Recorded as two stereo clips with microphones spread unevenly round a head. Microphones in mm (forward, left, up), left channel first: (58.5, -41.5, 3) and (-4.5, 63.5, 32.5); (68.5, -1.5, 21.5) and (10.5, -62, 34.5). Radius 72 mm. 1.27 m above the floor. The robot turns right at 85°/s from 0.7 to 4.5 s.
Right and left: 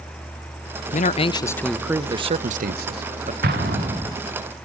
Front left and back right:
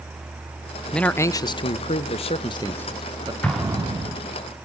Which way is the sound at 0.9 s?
40° right.